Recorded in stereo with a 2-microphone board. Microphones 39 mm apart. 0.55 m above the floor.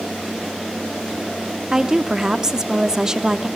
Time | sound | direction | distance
1.7 | a woman speaking | 15° right (ahead or behind) | 0.6 m